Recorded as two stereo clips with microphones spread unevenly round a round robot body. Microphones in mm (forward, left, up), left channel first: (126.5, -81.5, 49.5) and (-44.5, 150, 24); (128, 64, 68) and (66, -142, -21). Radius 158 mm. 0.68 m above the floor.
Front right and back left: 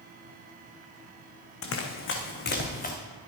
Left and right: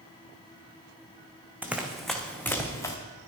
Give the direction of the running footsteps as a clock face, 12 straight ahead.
1 o'clock.